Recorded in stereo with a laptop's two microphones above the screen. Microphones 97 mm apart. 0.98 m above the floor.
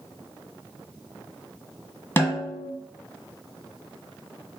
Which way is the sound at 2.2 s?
20° left (ahead or behind).